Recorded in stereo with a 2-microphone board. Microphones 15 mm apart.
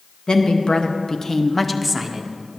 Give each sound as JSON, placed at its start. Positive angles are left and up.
{"t": 0.3, "sound": "a woman speaking", "side_deg": 80, "distance_m": 1.1}